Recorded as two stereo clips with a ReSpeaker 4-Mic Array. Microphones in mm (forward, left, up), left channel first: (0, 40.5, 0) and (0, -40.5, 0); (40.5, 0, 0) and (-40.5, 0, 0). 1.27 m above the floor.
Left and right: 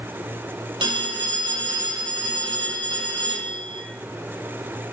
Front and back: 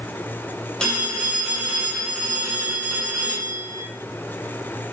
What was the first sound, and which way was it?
A phone ringing, 80° right.